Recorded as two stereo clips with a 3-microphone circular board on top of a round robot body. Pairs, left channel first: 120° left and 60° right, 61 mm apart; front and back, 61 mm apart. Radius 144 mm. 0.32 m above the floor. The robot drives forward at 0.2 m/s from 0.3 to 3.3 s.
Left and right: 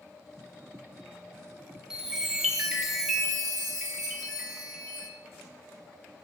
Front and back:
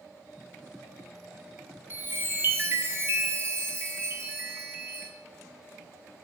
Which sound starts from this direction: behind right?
A chime, at 1.9 s.